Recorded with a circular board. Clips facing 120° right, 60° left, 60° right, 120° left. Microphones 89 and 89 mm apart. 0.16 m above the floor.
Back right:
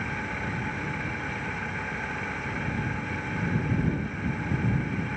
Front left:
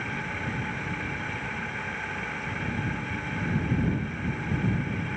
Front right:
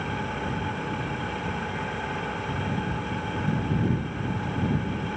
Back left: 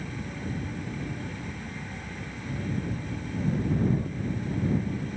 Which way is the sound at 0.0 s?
35° right.